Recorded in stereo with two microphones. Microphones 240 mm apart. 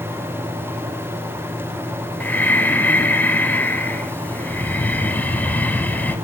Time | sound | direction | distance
2.2 | breathing | 10° left (ahead or behind) | 0.9 m